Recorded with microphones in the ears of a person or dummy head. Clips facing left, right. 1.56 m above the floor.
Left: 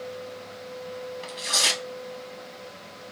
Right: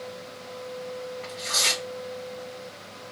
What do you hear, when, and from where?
1.2 s tearing paper: 65° left (ahead or behind), 1.6 m